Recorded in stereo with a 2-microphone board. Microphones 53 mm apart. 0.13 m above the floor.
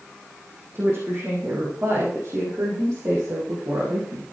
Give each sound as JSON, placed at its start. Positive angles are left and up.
{"t": 0.7, "sound": "a woman speaking", "side_deg": -45, "distance_m": 6.0}